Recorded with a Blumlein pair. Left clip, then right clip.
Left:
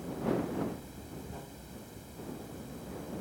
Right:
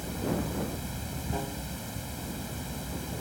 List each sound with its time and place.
0.0 s running water: 60° right